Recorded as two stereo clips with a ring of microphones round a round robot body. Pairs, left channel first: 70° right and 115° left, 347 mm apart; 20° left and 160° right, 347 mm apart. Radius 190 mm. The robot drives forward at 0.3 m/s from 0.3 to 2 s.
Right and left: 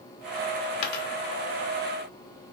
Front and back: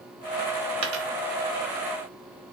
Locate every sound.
0.8 s a dropped coin: 105° right, 0.6 m; by 1.1 s 115° right, 0.6 m